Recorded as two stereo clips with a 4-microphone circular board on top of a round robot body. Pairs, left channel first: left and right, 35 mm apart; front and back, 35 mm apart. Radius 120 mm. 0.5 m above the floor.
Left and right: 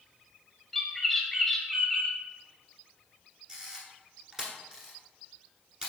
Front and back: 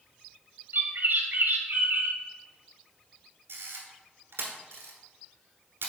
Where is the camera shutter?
165° right, 1.2 m.